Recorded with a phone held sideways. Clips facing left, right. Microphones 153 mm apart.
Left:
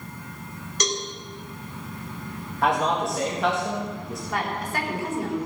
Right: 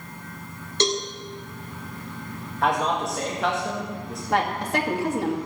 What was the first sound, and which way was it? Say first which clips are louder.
A cowbell: right 5 dB; 30° right (ahead or behind).